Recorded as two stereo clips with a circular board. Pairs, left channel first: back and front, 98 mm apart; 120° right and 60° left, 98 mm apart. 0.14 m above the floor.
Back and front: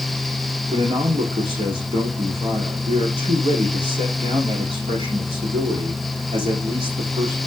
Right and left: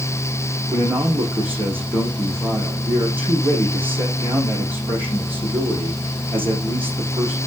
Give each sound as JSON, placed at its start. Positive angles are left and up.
{"t": 0.7, "sound": "a man speaking", "azimuth_deg": -10, "distance_m": 6.0}